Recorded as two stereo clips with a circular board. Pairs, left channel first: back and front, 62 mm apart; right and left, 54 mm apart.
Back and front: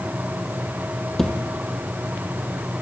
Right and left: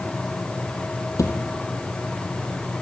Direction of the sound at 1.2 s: 95° right.